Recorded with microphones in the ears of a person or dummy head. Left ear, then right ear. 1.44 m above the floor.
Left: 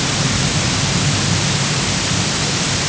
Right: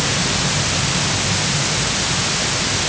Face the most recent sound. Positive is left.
No sound to turn to.